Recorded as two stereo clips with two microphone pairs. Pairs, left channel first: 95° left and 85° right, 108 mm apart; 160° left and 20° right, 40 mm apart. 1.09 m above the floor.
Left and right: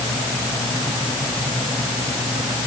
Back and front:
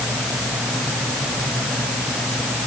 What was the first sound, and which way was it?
Only background noise.